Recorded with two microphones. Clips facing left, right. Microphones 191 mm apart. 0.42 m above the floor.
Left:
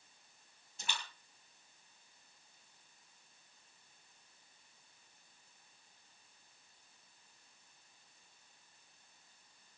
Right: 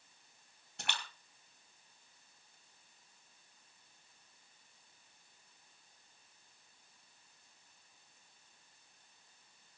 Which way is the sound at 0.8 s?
70° right (ahead or behind).